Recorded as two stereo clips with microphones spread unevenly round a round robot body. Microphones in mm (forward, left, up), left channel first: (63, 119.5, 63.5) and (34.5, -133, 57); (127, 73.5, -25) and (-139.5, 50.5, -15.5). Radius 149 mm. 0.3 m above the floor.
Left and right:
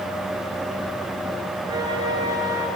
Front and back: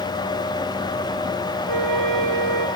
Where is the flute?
170° right, 6.5 m.